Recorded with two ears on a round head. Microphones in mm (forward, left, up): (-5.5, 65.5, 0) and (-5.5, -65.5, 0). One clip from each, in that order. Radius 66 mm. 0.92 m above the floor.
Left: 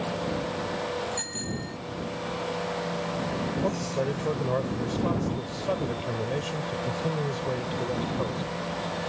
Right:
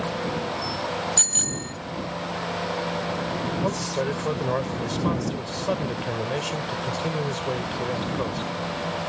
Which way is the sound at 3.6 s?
35° right (ahead or behind).